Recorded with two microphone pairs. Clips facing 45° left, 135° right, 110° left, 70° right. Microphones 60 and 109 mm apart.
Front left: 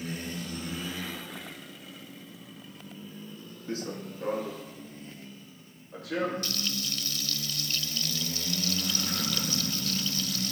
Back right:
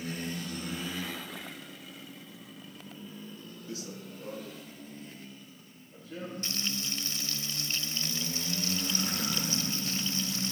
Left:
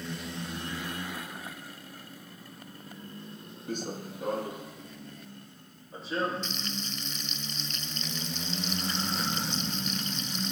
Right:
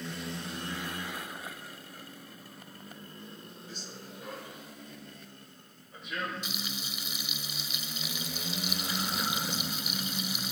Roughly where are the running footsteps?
Left.